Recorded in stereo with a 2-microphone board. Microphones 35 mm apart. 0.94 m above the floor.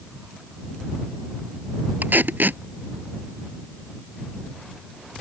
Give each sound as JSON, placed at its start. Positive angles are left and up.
{"t": 2.0, "sound": "tape being pulled", "side_deg": -65}